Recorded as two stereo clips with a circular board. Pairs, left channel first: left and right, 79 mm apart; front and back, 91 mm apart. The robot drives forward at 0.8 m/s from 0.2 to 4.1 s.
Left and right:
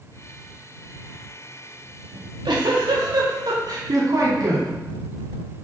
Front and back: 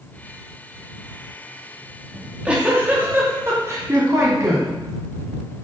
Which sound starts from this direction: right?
A giggle, at 2.1 s.